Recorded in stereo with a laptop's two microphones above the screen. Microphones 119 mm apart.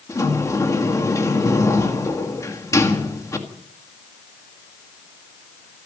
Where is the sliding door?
25° left (ahead or behind), 2.0 m.